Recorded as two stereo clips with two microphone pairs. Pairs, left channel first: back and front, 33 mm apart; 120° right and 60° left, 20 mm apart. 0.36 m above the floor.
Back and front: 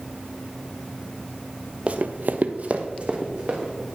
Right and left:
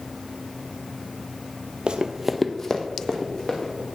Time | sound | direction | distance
1.9 | running footsteps | 40° left | 0.7 m